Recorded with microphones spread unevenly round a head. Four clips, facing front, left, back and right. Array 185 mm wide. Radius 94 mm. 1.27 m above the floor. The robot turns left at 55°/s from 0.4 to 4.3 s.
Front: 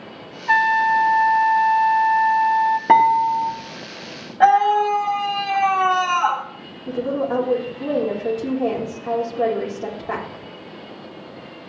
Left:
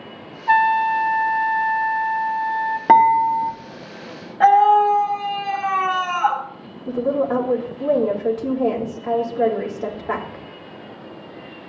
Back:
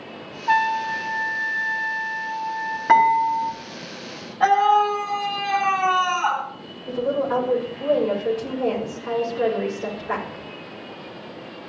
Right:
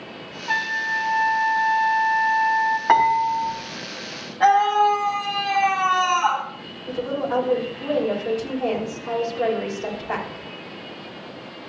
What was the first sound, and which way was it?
A trumpet, 115° left.